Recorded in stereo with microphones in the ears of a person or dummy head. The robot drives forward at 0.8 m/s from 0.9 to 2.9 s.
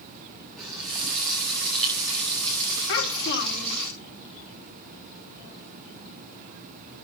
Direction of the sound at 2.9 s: 60° left (ahead or behind).